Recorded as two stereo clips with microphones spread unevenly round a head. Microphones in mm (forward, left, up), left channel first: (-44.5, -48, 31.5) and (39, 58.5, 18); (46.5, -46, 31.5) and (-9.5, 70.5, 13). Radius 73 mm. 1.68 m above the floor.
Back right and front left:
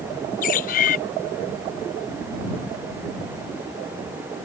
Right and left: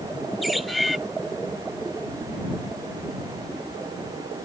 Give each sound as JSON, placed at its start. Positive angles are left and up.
{"t": 0.4, "sound": "a bird", "azimuth_deg": -155}